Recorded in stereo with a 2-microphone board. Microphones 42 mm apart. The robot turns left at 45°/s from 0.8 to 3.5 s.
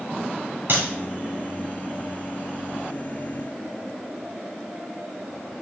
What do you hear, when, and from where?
0.7 s a clap: 60° right (ahead or behind), 3 m; by 0.9 s 55° right (ahead or behind), 3 m